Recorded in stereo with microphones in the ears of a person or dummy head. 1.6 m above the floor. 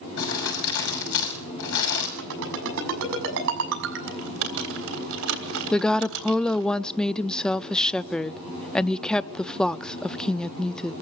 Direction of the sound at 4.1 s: 80° right.